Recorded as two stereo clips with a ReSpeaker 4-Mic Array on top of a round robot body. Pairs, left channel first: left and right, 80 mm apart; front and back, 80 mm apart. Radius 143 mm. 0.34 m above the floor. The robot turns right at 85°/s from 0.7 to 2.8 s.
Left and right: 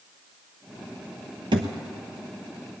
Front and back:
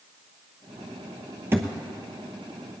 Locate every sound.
1.5 s a thud: 120° right, 0.7 m; by 1.7 s 100° right, 0.7 m